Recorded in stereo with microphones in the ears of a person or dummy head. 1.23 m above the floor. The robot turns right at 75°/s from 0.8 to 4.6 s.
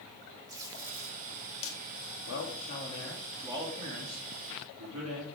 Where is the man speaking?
95° left, 3 m; by 5.3 s 85° right, 3 m.